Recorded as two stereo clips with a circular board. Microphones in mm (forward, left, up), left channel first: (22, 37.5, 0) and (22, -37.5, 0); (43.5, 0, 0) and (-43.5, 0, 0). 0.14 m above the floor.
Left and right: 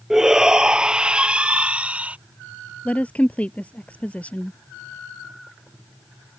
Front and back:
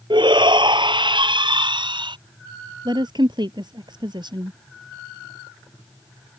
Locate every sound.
0.1 s a shout: 175° right; by 2.2 s 160° right
2.9 s a woman speaking: 160° left